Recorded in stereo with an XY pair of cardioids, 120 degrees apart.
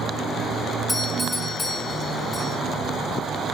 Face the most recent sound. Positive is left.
turn(degrees=5)